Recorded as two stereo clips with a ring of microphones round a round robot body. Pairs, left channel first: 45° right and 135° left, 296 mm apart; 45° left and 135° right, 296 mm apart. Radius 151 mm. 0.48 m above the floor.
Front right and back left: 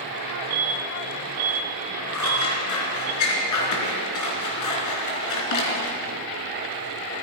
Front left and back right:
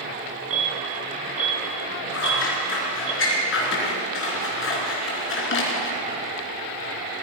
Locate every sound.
0.5 s an alarm: straight behind, 4 m
2.1 s scissors: 10° right, 4 m